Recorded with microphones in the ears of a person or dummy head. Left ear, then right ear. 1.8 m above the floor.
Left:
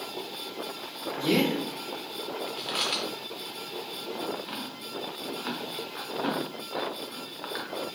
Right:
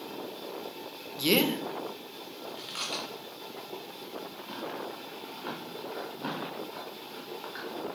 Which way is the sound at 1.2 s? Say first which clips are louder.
Even; 50° right (ahead or behind).